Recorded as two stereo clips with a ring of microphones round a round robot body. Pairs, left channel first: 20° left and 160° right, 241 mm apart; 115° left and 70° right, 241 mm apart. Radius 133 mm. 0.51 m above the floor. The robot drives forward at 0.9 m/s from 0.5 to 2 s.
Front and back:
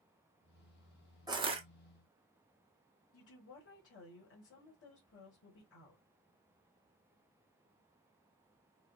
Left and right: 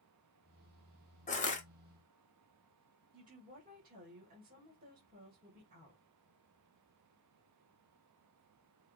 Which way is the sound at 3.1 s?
15° right.